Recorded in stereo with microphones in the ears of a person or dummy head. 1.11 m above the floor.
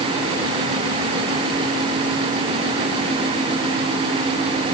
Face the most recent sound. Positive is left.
No sound to turn to.